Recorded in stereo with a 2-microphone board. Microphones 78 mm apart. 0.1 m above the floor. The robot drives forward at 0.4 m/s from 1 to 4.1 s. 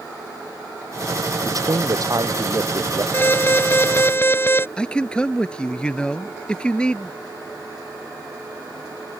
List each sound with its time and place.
1.4 s a man speaking: 50° right (ahead or behind); by 3.0 s 45° right (ahead or behind)
3.1 s an alarm: 30° left (ahead or behind)
4.8 s a man speaking: 15° left (ahead or behind)